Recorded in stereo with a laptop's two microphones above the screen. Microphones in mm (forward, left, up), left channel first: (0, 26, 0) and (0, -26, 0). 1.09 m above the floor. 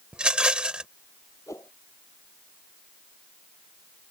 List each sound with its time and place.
0.1 s a rattle: 20° right (ahead or behind)
1.5 s a whoosh: 75° left (ahead or behind)